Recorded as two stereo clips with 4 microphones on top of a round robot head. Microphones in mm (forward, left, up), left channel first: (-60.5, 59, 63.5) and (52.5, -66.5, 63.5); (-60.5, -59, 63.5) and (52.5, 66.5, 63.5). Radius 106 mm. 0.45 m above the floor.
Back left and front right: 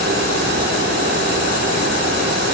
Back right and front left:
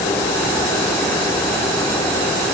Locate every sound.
Only background noise.